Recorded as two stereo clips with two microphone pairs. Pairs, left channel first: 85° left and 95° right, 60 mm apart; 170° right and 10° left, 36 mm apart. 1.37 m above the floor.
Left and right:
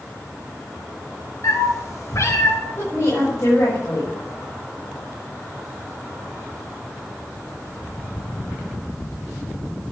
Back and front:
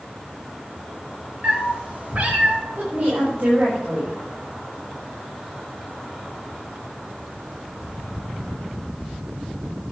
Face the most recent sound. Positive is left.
turn(degrees=45)